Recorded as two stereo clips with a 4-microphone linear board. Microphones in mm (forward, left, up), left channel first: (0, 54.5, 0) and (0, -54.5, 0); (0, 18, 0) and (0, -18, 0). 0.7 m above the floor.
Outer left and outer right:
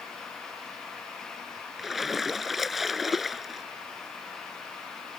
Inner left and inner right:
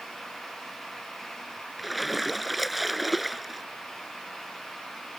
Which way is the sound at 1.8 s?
Centre (ahead or behind).